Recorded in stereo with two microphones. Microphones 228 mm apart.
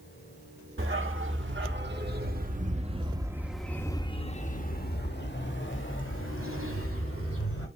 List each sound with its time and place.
0.8 s a dog barking: 60° right (ahead or behind), 2 m; by 7.7 s 70° left (ahead or behind), 3 m